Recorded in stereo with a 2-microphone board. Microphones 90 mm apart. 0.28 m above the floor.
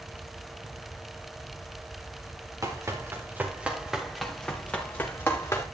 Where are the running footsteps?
35° right (ahead or behind), 3.5 m; by 5.7 s 30° left (ahead or behind), 4 m.